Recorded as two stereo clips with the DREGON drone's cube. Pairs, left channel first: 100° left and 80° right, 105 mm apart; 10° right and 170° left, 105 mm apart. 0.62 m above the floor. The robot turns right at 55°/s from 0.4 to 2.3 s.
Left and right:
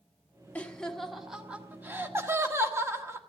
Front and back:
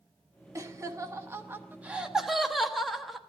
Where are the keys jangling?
No keys jangling in this recording.